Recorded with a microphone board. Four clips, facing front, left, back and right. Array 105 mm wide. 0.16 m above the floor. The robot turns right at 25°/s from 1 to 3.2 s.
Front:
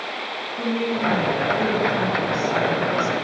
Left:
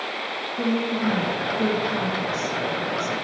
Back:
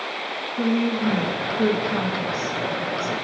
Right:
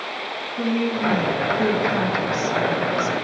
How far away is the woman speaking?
About 1.6 m.